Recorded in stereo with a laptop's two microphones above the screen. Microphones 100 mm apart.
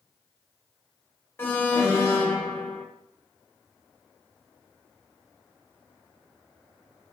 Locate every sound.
1.4 s an alarm: 25° left (ahead or behind), 0.8 m